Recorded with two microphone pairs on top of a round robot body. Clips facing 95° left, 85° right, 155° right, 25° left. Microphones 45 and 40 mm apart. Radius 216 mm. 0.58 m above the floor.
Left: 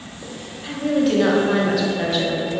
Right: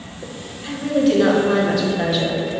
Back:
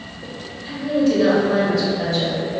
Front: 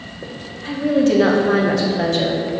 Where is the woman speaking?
10° left, 1.8 m.